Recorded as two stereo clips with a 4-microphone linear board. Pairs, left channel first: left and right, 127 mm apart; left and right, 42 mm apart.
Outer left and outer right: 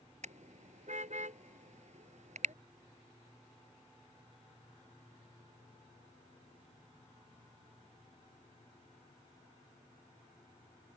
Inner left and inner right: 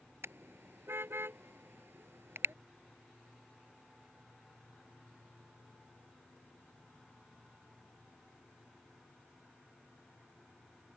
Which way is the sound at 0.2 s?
65° right (ahead or behind).